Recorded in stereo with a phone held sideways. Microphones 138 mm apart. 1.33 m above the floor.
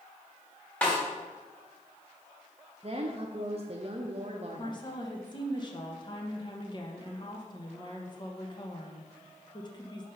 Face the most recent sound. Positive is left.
turn(degrees=35)  # may be behind; listen again after turning